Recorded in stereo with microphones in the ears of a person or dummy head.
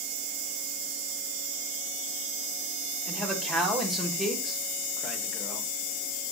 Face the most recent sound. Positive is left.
turn(degrees=0)  # may be behind; listen again after turning